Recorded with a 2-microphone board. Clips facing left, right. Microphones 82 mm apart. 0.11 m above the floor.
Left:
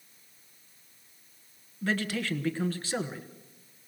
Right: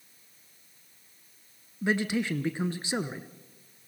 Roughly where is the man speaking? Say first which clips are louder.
Right 3 dB; centre.